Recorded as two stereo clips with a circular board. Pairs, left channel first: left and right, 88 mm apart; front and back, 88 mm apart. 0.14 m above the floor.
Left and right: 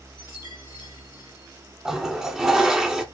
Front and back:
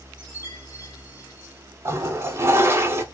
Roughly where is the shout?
I don't hear a shout.